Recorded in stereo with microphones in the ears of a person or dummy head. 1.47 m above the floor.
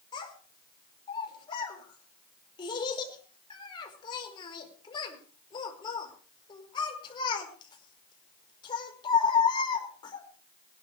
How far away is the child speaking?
About 4.5 m.